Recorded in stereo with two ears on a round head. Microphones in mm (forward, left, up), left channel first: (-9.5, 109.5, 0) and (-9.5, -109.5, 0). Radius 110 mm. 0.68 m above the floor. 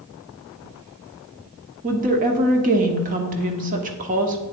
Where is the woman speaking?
35° right (ahead or behind), 1.2 m.